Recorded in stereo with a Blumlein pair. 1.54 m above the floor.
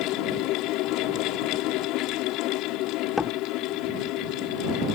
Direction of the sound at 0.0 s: 40° left.